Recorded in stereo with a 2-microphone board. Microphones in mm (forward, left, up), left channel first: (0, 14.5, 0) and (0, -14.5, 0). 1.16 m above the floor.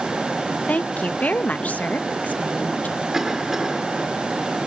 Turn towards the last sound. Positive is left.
turn(degrees=-10)  # may be behind; listen again after turning